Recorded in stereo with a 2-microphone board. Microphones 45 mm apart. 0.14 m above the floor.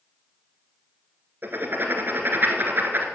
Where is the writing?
50° right (ahead or behind), 1.4 m.